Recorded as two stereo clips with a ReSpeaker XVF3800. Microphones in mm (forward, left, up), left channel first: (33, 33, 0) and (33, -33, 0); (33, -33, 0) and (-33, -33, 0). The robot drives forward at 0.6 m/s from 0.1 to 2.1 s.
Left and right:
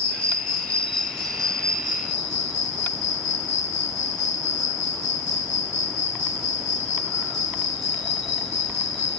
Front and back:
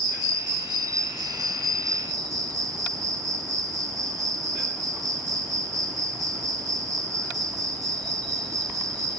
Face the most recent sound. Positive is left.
turn(degrees=175)